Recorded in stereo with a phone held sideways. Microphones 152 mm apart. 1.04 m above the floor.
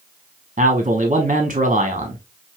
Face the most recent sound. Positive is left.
turn(degrees=-45)  # may be behind; listen again after turning